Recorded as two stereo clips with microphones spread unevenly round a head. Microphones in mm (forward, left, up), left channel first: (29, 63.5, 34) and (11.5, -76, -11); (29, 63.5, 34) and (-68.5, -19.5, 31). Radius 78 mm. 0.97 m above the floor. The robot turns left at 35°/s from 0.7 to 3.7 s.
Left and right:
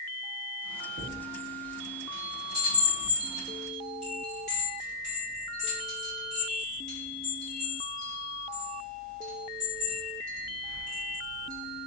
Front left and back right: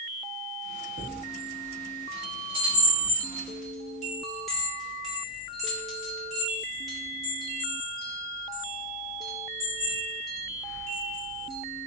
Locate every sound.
1.0 s a chime: 135° right, 1.2 m; by 11.9 s 130° left, 1.2 m